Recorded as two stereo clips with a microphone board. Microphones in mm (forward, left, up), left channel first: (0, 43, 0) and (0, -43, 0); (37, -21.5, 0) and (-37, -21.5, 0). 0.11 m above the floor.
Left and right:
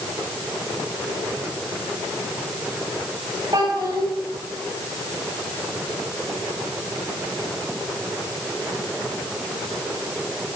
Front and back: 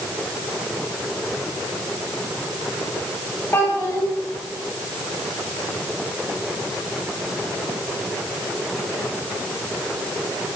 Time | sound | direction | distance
3.5 | a child speaking | 55° right | 8 m